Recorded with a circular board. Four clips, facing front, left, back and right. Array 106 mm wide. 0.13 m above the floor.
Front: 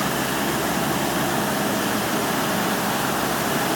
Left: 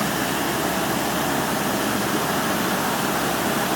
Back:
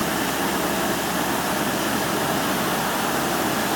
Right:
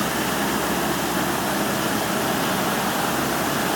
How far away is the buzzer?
No buzzer in this recording.